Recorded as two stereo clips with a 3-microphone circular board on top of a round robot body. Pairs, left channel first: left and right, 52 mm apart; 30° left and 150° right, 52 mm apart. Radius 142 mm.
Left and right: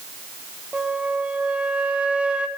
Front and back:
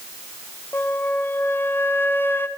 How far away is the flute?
About 0.9 m.